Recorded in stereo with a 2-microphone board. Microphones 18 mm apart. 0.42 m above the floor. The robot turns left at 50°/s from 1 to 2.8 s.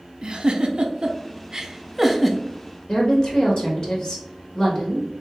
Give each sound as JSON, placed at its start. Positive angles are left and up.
{"t": 0.2, "sound": "a giggle", "side_deg": -65, "distance_m": 0.6}
{"t": 2.9, "sound": "a woman speaking", "side_deg": 45, "distance_m": 1.6}